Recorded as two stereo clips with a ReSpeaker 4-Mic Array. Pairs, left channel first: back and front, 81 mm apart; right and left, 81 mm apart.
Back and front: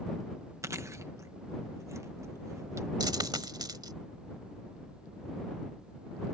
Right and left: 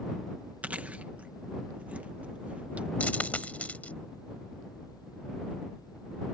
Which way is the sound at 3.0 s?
20° right.